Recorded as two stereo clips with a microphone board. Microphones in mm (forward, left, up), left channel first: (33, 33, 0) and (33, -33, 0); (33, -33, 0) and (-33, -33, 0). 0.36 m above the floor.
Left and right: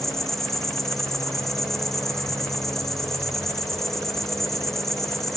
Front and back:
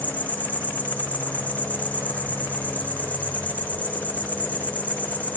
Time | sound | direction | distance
0.0 | an insect | 10° left | 1.5 m